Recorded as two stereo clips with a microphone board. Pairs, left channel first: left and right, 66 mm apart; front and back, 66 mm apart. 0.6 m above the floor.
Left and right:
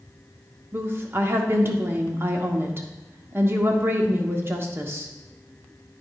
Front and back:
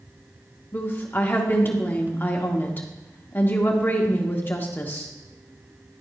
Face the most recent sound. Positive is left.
turn(degrees=-50)